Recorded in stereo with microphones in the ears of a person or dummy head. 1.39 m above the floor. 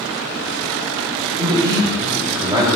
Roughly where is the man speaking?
Centre.